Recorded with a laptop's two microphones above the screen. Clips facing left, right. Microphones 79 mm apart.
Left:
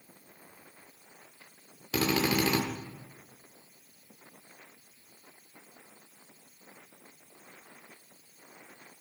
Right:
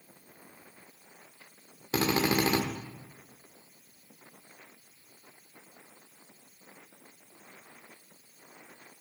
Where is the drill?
30° right (ahead or behind), 1.6 m.